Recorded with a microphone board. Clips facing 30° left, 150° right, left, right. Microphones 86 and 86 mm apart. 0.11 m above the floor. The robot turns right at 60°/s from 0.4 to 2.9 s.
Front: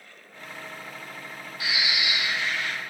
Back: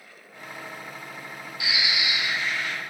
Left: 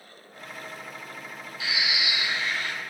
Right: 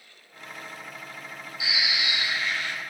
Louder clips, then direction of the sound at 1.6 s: Even, even; 20° right.